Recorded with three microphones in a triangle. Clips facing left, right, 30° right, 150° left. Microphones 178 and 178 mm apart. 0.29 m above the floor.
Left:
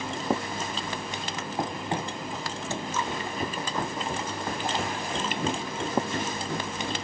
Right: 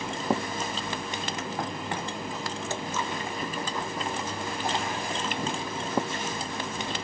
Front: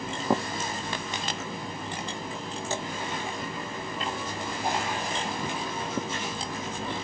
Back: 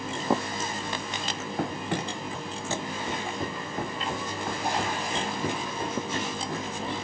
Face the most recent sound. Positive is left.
turn(degrees=95)